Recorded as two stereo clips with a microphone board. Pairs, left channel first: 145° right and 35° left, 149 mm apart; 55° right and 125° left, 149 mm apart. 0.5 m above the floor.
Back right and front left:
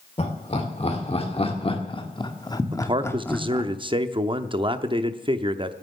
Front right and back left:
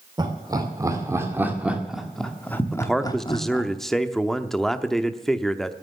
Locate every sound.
0.2 s laughter: straight behind, 2 m; by 3.7 s 65° right, 1.4 m
2.7 s a man speaking: 30° left, 0.7 m